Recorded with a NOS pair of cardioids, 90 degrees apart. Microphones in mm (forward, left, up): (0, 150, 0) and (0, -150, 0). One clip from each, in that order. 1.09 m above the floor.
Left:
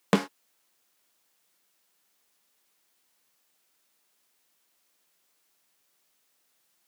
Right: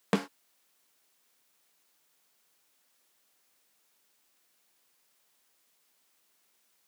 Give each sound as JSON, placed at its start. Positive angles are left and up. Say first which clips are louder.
{"t": 0.1, "sound": "a snare drum", "louder": "left 5 dB", "azimuth_deg": 25}